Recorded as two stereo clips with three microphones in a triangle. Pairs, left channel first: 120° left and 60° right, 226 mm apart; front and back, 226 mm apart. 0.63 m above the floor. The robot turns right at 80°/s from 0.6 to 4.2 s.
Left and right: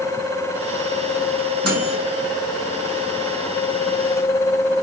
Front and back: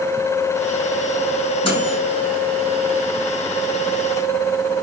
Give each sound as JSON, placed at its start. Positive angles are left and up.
{"t": 1.6, "sound": "a microwave", "azimuth_deg": -70, "distance_m": 6.5}